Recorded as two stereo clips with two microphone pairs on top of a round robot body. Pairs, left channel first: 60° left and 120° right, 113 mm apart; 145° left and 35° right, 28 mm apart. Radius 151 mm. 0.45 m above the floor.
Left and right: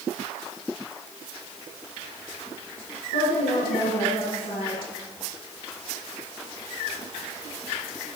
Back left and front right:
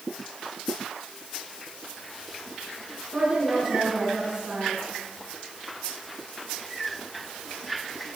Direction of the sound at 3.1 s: 40° left.